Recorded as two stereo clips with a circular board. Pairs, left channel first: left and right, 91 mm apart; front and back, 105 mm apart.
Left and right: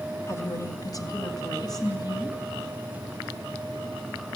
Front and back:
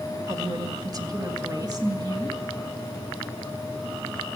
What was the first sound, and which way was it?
A woman speaking, 135° left.